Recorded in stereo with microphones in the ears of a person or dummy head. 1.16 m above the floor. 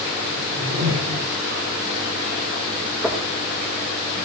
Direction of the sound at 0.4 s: 80° right.